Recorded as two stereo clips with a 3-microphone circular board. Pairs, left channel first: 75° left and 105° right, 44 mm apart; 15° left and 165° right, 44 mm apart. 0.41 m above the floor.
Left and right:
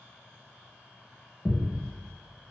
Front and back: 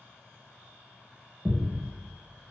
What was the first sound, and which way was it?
A thud, 135° left.